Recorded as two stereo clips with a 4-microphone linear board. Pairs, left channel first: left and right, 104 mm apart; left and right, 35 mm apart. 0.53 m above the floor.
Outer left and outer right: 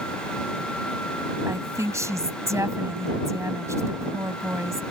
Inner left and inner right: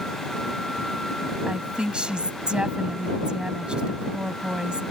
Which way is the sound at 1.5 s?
25° right (ahead or behind).